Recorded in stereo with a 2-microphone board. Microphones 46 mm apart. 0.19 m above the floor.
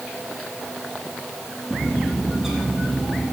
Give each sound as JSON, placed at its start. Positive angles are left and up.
{"t": 1.7, "sound": "a bird", "side_deg": -10, "distance_m": 4.0}